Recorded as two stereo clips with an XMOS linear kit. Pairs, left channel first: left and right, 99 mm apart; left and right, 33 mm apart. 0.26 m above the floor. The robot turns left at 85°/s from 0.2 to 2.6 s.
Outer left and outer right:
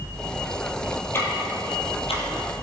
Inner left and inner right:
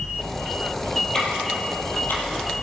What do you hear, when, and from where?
1.1 s ticking: 20° left (ahead or behind), 3.5 m; by 2.6 s 35° left (ahead or behind), 3.5 m